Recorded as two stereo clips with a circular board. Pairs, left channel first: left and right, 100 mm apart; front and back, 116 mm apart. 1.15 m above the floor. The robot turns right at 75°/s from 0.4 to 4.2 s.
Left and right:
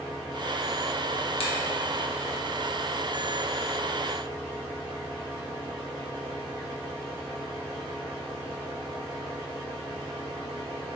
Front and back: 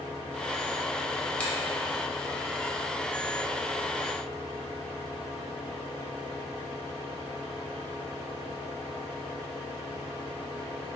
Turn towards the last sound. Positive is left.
turn(degrees=-70)